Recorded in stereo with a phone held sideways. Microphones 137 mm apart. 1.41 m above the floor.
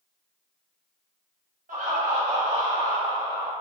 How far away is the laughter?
About 1.2 m.